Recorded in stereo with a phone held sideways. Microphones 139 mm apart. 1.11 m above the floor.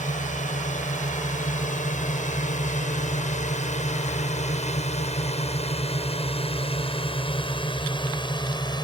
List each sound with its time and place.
0.0 s a drone: 75° left (ahead or behind); by 8.8 s 35° left (ahead or behind)